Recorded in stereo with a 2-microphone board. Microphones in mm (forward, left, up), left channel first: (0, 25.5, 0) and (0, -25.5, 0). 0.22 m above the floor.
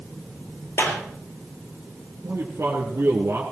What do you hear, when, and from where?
0.8 s a clap: 55° left (ahead or behind), 4 m
2.2 s a man speaking: 60° right (ahead or behind), 3 m